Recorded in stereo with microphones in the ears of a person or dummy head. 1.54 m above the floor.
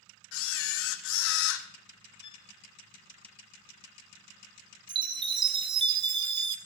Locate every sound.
0.3 s a camera shutter: 75° left (ahead or behind), 0.8 m
2.2 s a violin: 30° left (ahead or behind), 1.1 m
4.9 s a chime: 30° right (ahead or behind), 0.7 m